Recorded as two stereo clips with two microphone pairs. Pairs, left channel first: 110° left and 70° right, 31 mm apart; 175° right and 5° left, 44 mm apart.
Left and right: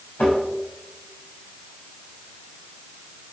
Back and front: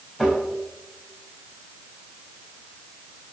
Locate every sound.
0.2 s tapping: 115° left, 4 m